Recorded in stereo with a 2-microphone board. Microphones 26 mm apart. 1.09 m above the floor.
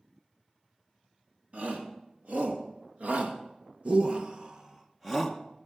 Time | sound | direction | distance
1.5 | a shout | 75° right (ahead or behind) | 2.5 m